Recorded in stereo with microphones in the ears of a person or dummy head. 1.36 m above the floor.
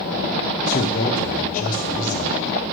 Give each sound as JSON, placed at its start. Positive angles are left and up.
{"t": 0.7, "sound": "a man speaking", "side_deg": 45, "distance_m": 0.8}